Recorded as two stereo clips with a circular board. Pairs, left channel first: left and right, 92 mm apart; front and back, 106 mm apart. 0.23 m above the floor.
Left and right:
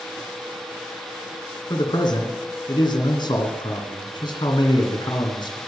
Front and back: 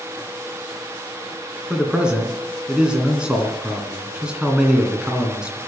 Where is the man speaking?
100° left, 2.5 m.